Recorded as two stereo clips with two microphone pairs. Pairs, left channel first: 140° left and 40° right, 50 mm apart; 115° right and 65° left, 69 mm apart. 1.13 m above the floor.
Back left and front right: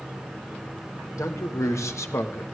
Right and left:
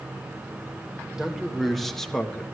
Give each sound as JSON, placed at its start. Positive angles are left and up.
{"t": 1.2, "sound": "a man speaking", "azimuth_deg": 150, "distance_m": 1.6}